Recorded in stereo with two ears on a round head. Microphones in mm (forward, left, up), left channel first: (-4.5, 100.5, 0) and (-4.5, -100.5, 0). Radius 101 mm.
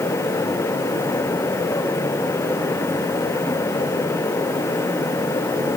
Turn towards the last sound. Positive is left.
No sound to turn to.